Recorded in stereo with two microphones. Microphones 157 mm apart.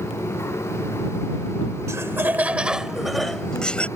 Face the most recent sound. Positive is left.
turn(degrees=10)  # may be behind; listen again after turning